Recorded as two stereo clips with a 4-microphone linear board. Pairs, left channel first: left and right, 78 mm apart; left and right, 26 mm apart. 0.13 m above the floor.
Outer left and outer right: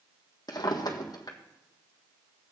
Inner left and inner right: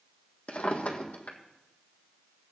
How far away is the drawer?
About 1.6 m.